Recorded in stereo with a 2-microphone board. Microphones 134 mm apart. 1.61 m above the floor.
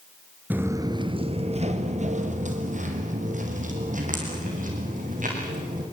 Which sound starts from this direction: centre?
Footsteps, at 0.5 s.